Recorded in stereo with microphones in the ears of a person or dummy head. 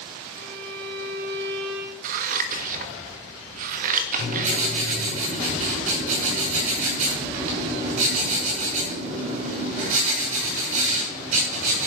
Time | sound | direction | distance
0.3 | a violin | 65° right (ahead or behind) | 1.9 m
2.0 | scissors | 50° right (ahead or behind) | 1.4 m
4.2 | writing | 45° right (ahead or behind) | 6.5 m